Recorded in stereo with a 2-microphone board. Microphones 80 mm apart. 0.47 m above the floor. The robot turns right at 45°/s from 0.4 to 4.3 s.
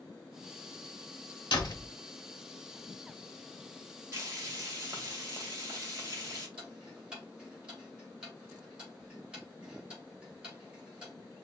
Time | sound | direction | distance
1.5 | a door slam | 65° left (ahead or behind) | 1.2 m
4.1 | frying | 30° right (ahead or behind) | 1.9 m
6.6 | ticking | 10° right (ahead or behind) | 3 m